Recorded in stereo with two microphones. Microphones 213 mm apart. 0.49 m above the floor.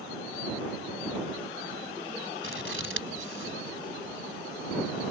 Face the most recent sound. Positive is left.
turn(degrees=-70)  # may be behind; listen again after turning